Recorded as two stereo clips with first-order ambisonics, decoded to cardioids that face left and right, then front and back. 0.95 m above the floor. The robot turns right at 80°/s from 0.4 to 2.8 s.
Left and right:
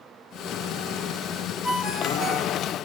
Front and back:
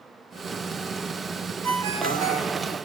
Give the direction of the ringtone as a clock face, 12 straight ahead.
7 o'clock.